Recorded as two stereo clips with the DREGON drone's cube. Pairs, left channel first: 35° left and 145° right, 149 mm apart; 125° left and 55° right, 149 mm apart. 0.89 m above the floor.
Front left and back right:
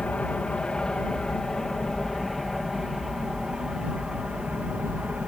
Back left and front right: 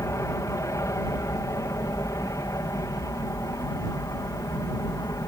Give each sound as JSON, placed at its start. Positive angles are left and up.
{"t": 0.0, "sound": "an aircraft", "azimuth_deg": 105}